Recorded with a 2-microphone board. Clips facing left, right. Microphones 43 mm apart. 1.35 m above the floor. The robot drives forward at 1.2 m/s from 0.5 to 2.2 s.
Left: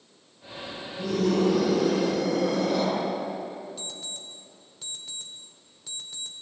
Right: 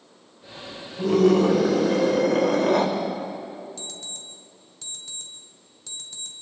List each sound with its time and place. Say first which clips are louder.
1.0 s a scream: right 6 dB; 45° right (ahead or behind), 5.5 m; by 2.9 s 60° right (ahead or behind), 4.5 m
3.8 s an alarm clock: even; 5° left (ahead or behind), 2 m